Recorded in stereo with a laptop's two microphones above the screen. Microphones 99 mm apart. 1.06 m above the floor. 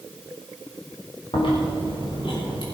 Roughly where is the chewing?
Left.